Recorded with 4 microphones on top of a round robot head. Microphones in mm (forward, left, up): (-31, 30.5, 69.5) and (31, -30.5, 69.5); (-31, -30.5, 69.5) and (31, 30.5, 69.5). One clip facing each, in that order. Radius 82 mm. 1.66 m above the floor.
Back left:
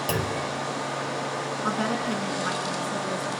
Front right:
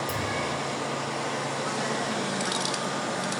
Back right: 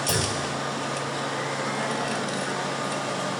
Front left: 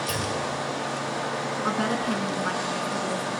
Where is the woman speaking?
90° left, 3.5 m.